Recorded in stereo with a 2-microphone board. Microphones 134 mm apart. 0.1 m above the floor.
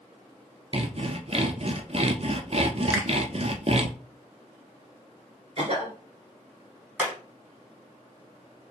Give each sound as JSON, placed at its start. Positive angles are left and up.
{"t": 0.7, "sound": "sawing", "side_deg": -50, "distance_m": 0.5}
{"t": 2.9, "sound": "a finger snap", "side_deg": -20, "distance_m": 0.9}
{"t": 5.6, "sound": "a cough", "side_deg": -45, "distance_m": 2.0}
{"t": 7.0, "sound": "hammering", "side_deg": -10, "distance_m": 2.0}